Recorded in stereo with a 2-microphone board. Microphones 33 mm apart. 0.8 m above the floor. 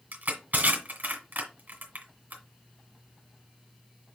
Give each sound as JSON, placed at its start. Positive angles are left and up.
{"t": 0.1, "sound": "crushing", "side_deg": -55, "distance_m": 1.9}